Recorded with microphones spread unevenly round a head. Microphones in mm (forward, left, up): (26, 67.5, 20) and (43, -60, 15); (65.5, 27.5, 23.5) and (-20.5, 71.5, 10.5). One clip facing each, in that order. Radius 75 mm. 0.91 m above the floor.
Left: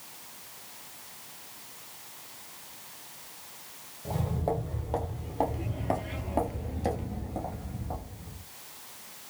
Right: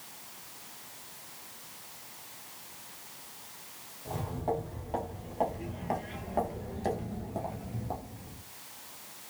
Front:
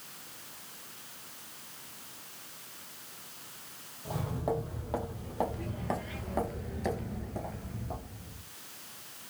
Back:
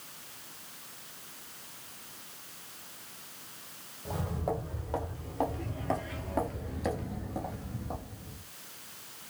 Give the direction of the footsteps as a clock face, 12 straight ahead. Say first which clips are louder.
Left 2 dB, front 1 dB; 10 o'clock.